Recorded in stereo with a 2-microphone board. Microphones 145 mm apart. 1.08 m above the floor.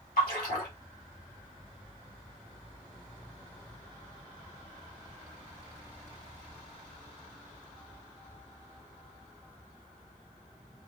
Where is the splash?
75° left (ahead or behind), 1.8 m.